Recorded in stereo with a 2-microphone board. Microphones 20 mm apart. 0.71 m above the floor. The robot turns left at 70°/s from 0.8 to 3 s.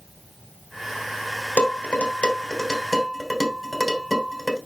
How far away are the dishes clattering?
About 3 m.